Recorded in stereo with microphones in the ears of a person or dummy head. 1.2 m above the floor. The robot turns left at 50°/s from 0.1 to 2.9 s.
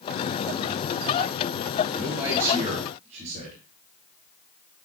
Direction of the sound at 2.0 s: 5° left.